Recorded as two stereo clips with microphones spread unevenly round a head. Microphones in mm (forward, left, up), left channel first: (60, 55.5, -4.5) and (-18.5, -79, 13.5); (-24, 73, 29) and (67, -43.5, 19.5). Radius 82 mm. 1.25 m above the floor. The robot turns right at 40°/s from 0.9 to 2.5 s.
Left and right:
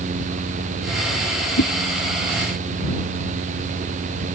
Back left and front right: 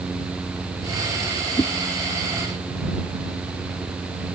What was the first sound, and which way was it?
A whoosh, 55° left.